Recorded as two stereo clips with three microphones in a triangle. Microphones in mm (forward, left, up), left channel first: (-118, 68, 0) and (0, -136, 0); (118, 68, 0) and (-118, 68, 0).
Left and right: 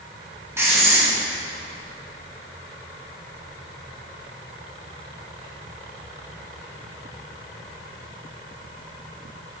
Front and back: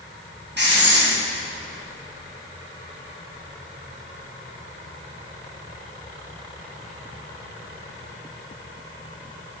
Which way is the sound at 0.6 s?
140° right.